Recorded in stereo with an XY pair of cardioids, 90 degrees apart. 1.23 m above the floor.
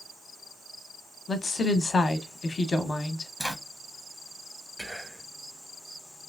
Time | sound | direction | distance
1.3 | a woman speaking | 35° left | 0.5 m
3.4 | a zipper | 5° right | 0.7 m
4.8 | whispering | 10° right | 0.6 m